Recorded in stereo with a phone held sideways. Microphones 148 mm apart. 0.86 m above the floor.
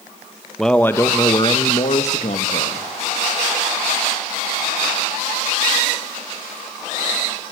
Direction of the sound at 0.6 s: Centre (ahead or behind).